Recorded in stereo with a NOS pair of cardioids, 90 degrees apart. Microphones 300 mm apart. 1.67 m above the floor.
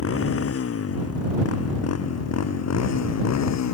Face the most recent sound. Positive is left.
turn(degrees=65)